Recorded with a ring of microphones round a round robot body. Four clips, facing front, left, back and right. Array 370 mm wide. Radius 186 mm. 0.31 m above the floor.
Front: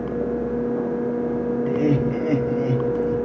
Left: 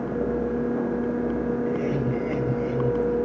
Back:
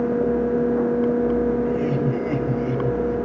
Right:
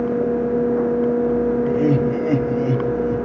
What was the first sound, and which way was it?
Laughter, 60° right.